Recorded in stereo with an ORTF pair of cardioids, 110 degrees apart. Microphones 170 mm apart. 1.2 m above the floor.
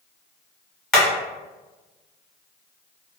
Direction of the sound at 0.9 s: Straight ahead.